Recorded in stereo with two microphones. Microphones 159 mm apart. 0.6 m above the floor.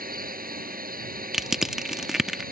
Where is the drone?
65° right (ahead or behind).